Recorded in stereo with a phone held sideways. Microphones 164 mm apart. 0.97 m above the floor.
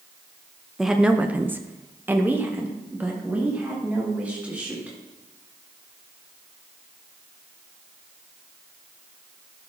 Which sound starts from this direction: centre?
A woman speaking, at 0.8 s.